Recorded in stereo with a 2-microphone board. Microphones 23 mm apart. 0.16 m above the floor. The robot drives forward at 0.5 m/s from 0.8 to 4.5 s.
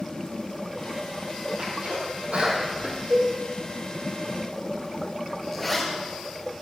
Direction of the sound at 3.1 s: 70° right (ahead or behind).